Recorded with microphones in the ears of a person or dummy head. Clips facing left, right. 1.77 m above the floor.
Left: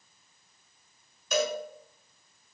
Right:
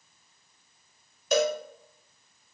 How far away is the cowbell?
About 1.5 m.